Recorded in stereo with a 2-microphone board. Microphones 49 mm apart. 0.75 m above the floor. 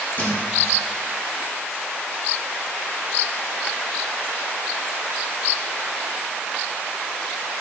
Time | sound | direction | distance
0.2 | a thud | 40° left (ahead or behind) | 3.5 m